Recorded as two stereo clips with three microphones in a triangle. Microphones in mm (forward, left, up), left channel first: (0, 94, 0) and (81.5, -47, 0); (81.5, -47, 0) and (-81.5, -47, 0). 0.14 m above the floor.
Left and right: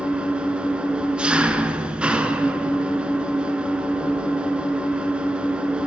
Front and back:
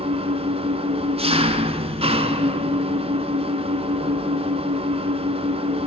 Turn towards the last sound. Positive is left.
turn(degrees=-140)